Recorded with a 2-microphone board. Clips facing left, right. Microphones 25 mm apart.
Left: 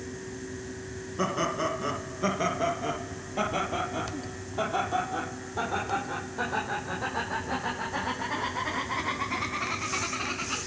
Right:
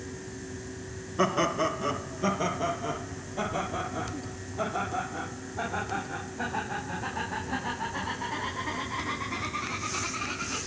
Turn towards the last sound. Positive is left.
turn(degrees=60)  # may be behind; listen again after turning